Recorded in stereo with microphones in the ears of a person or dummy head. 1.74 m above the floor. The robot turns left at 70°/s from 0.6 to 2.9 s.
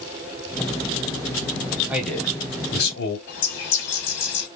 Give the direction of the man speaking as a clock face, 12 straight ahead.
6 o'clock.